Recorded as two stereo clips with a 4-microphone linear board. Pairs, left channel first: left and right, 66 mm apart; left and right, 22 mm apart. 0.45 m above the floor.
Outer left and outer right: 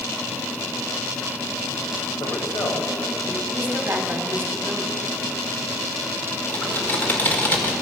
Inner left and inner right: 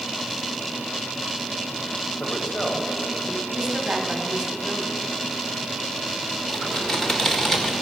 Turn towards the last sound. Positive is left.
turn(degrees=25)  # may be behind; listen again after turning